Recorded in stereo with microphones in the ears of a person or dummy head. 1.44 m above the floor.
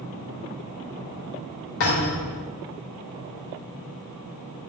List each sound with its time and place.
1.8 s a thud: 70° left (ahead or behind), 2.5 m